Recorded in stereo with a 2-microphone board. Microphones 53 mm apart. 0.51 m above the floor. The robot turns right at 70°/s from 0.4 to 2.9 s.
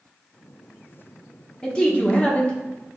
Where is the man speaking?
15° left (ahead or behind), 0.8 m; by 2.9 s 20° left (ahead or behind), 0.8 m.